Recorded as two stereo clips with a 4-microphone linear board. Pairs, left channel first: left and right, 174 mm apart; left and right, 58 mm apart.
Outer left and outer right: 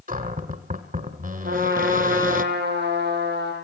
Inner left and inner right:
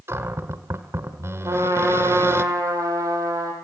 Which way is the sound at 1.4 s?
75° right (ahead or behind).